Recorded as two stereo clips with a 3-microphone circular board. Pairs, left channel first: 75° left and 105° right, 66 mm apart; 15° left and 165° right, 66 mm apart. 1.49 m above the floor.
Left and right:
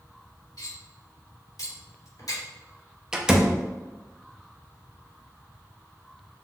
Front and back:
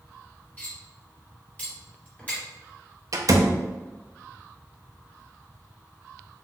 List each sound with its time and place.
0.6 s cutlery clinking: 80° left, 2 m
3.1 s a door slam: 175° left, 0.6 m